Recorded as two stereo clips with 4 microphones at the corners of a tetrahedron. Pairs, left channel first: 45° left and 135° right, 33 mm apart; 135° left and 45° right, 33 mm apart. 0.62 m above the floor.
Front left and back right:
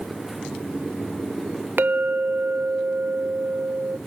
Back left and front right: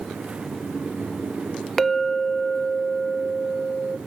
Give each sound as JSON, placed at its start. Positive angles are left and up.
{"t": 1.8, "sound": "a clink", "azimuth_deg": -140, "distance_m": 1.0}